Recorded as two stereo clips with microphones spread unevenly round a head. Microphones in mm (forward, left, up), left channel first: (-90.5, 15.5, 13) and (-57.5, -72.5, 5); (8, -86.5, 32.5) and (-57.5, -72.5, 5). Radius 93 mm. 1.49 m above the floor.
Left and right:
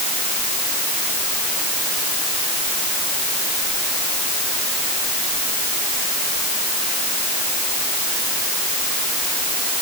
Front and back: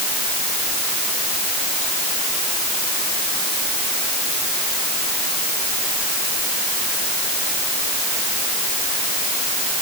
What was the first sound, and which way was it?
Only background noise.